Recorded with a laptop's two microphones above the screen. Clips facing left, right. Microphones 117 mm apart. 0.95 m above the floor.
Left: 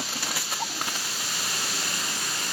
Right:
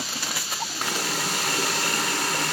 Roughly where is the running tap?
Right.